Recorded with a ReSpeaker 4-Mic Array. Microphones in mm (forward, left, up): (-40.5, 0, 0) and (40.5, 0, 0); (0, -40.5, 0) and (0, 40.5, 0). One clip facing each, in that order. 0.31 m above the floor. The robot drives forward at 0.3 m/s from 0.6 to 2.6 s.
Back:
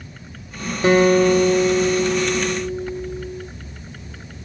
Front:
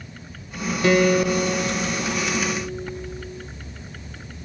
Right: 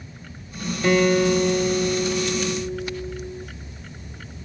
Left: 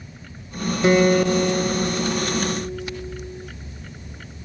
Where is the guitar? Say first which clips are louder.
Back 4 dB, left 1 dB; 150° left, 1.0 m; by 3.5 s 165° left, 1.3 m.